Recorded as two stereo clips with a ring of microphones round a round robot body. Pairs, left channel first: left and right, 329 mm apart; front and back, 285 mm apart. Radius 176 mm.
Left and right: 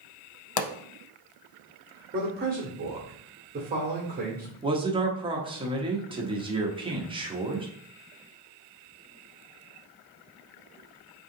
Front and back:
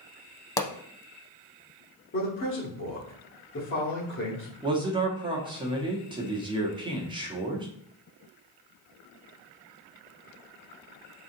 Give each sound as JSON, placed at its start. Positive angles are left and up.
{"t": 0.6, "sound": "a pop", "azimuth_deg": 75, "distance_m": 0.5}
{"t": 2.1, "sound": "a man speaking", "azimuth_deg": -35, "distance_m": 1.3}
{"t": 4.6, "sound": "a man speaking", "azimuth_deg": -135, "distance_m": 1.1}